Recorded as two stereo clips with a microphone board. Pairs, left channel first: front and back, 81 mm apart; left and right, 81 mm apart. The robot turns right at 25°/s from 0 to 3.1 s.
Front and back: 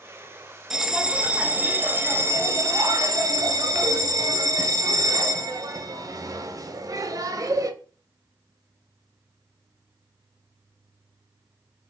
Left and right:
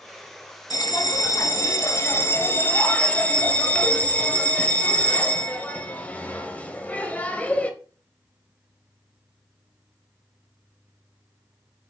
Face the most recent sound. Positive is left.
turn(degrees=160)